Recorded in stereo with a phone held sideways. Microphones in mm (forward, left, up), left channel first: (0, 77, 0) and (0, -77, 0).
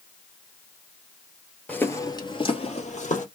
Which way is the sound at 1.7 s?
10° left (ahead or behind).